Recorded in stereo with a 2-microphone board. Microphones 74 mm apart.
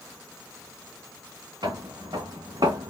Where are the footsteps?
70° right (ahead or behind), 2 m; by 2.9 s 75° right (ahead or behind), 1.1 m.